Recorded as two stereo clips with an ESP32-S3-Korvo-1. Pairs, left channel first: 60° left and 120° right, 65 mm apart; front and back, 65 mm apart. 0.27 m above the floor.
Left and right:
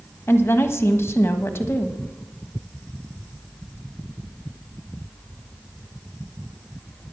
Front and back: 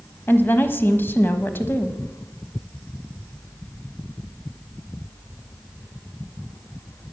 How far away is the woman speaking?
About 1.3 m.